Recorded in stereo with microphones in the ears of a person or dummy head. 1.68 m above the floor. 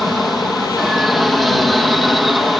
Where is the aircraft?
Centre (ahead or behind).